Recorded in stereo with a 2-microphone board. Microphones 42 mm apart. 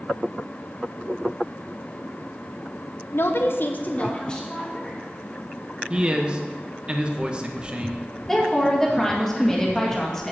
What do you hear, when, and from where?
3.1 s a woman speaking: 70° left (ahead or behind), 1.0 m; by 5.0 s 10° left (ahead or behind), 1.9 m
5.9 s a man speaking: 25° right (ahead or behind), 0.7 m
8.3 s a woman speaking: 10° left (ahead or behind), 1.7 m